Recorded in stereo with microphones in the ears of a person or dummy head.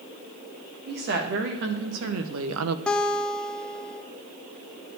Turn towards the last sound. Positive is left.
turn(degrees=5)  # may be behind; listen again after turning